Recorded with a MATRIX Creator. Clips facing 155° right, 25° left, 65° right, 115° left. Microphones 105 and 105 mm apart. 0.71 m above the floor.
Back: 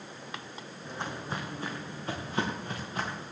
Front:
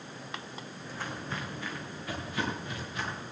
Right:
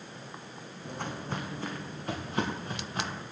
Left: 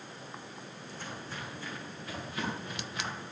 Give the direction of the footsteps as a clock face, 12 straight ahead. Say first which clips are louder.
Back 2 dB, right 8 dB; 3 o'clock.